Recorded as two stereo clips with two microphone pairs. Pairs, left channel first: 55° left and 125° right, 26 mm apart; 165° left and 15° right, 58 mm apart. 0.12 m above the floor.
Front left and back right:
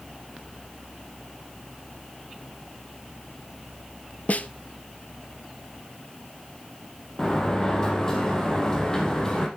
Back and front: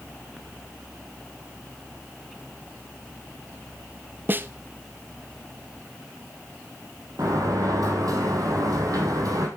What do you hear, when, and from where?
4.3 s a snare drum: 40° left, 0.6 m
7.2 s a sliding door: 10° right, 3 m